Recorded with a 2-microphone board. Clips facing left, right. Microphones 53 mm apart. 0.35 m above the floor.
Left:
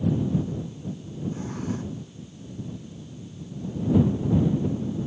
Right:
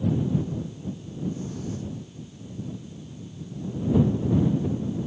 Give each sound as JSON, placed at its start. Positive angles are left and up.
{"t": 1.3, "sound": "a drawer", "side_deg": 50}